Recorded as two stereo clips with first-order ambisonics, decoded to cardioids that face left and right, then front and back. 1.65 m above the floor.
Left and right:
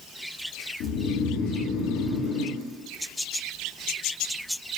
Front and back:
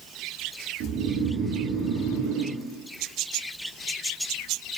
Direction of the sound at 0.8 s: 135° left.